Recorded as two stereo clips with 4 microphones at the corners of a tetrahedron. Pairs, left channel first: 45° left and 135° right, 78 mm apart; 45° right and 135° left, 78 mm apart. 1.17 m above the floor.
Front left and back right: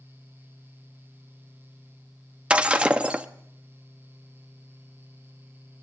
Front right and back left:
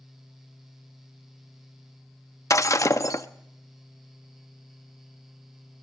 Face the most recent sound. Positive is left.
turn(degrees=-65)